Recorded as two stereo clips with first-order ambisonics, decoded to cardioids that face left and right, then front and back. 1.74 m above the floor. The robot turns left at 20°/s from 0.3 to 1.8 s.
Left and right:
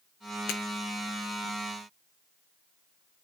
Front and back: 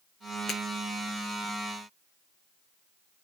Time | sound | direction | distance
0.5 | breaking glass | 70° left | 4.5 m